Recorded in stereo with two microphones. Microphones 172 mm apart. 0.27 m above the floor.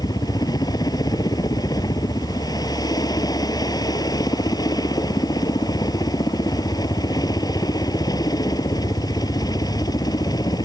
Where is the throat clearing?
No throat clearing in this recording.